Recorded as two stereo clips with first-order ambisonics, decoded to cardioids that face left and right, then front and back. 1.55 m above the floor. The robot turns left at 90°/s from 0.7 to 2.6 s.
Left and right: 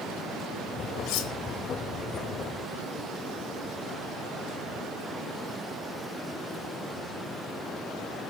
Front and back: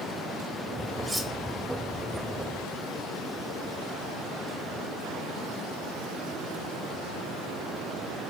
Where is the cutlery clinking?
105° left, 1.6 m; by 1.3 s 80° left, 1.6 m.